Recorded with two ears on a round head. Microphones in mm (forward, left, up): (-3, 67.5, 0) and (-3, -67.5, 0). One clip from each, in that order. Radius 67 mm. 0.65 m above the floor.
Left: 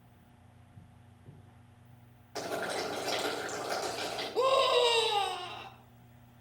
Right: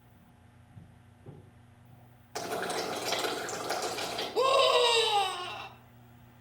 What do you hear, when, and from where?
2.4 s boiling: 15° right (ahead or behind), 5 m
4.3 s a scream: 10° right (ahead or behind), 1.4 m